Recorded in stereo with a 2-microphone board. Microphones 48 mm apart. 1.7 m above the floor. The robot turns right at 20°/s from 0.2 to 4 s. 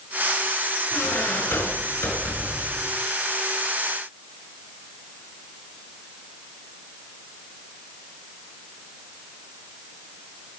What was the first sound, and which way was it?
A squeak, 70° left.